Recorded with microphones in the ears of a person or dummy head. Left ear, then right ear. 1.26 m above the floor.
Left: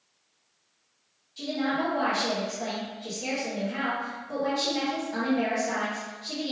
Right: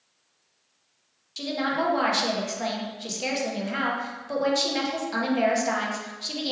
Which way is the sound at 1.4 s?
50° right (ahead or behind).